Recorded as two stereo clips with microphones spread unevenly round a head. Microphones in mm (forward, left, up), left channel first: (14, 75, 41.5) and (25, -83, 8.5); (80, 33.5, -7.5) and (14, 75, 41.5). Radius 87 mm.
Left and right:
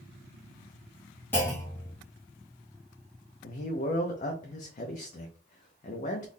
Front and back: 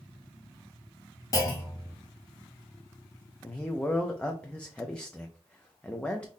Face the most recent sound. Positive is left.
turn(degrees=55)